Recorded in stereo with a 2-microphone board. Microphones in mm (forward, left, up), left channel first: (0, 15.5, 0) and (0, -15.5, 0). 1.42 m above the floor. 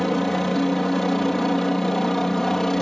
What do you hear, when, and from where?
0.0 s a helicopter: 10° left (ahead or behind); by 2.8 s 15° left (ahead or behind)